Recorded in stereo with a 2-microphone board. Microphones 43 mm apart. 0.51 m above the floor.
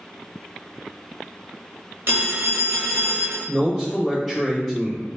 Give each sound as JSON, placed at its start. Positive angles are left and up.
{"t": 2.1, "sound": "a phone ringing", "side_deg": -60, "distance_m": 0.7}
{"t": 3.5, "sound": "a man speaking", "side_deg": 10, "distance_m": 1.5}